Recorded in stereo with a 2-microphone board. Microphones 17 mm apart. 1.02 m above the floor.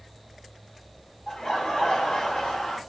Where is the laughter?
55° left (ahead or behind), 0.8 m.